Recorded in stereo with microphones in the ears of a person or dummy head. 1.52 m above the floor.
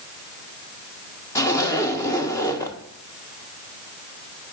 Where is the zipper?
15° left (ahead or behind), 1.1 m.